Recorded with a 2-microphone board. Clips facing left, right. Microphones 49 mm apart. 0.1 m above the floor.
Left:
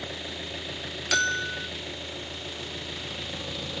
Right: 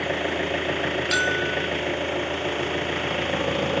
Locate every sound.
0.0 s an engine running: 45° right (ahead or behind)
1.1 s a bell: 5° right (ahead or behind)